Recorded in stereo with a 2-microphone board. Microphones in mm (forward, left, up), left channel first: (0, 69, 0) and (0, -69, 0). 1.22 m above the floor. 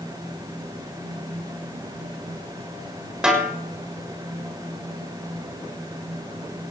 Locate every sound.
3.2 s a snare drum: 5° right (ahead or behind), 6 m